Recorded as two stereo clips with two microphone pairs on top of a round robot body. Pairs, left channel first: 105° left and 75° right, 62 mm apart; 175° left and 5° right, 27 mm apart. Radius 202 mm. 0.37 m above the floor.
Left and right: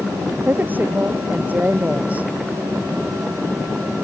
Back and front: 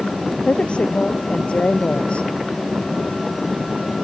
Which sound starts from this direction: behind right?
A woman speaking, at 0.5 s.